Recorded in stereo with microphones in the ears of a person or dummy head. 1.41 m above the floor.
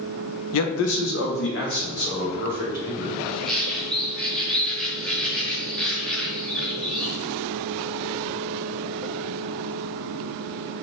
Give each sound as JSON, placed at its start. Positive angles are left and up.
{"t": 0.5, "sound": "a man speaking", "side_deg": 85, "distance_m": 0.5}
{"t": 3.2, "sound": "a bird", "side_deg": 5, "distance_m": 0.9}